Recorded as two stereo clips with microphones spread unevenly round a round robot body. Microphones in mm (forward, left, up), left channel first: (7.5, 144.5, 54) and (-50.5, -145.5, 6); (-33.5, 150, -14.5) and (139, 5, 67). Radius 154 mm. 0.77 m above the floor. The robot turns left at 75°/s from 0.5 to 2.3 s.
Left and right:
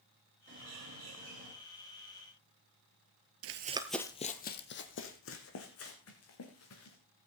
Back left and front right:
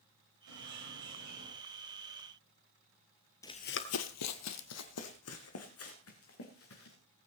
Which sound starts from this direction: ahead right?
A bird, at 0.5 s.